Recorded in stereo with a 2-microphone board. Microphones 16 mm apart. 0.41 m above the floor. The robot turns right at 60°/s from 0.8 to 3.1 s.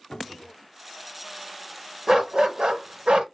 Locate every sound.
0.1 s a cupboard door: 75° left (ahead or behind), 0.6 m
2.1 s a dog barking: 145° right, 0.8 m; by 3.2 s 80° right, 0.8 m